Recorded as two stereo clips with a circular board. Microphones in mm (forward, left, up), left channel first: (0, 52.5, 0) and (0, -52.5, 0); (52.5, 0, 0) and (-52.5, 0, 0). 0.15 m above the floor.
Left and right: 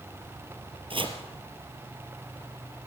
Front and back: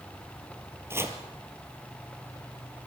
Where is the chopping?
115° right, 2.5 m.